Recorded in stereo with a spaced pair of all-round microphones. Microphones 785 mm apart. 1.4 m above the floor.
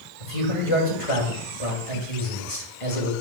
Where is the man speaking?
40° left (ahead or behind), 2 m.